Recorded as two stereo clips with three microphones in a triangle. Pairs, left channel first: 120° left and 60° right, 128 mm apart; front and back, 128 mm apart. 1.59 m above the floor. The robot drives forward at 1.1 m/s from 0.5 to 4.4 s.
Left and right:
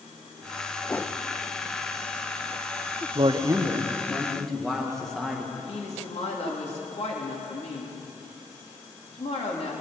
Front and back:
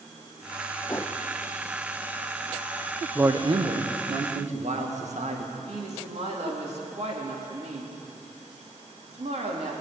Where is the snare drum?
I don't hear a snare drum.